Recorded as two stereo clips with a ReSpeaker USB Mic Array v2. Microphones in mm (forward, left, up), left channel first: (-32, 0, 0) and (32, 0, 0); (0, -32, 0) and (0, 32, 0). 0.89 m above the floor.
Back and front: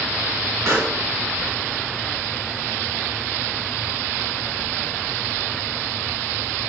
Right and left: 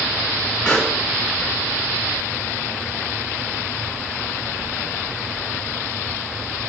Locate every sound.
0.7 s a pop: 20° right, 1.7 m